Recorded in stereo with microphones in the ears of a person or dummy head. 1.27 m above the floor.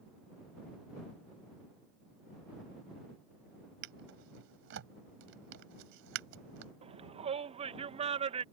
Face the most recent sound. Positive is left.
turn(degrees=-30)  # may be behind; listen again after turning